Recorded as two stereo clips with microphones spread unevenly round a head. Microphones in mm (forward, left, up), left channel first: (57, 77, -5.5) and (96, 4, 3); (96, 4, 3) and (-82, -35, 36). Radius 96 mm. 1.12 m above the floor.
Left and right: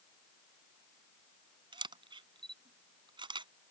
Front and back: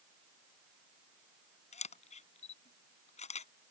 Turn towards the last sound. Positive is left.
turn(degrees=-45)